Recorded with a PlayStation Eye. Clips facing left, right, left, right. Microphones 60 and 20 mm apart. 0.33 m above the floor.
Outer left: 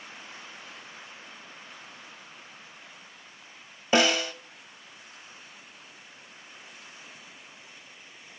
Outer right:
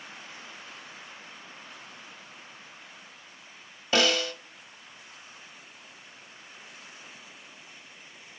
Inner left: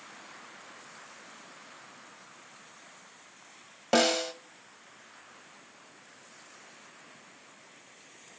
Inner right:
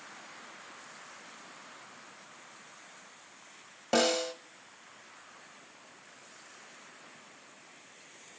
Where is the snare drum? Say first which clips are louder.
Outer left 2 dB, inner left 2 dB; 20° left (ahead or behind), 0.8 m.